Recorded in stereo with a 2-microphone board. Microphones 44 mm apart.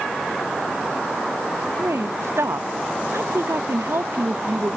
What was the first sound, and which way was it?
A woman speaking, 80° right.